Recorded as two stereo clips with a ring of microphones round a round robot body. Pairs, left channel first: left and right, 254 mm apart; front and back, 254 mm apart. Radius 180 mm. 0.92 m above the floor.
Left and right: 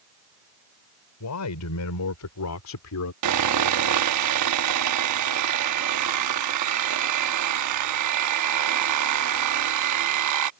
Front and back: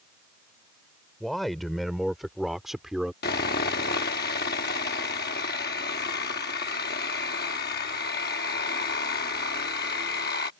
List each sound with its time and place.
1.2 s a man speaking: 90° left
3.2 s sawing: 65° right